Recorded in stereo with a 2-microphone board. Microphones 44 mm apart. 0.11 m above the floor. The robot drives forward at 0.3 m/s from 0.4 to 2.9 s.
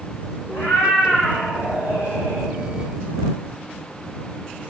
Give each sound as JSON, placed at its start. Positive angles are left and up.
{"t": 0.5, "sound": "a cat meowing", "side_deg": 80, "distance_m": 1.3}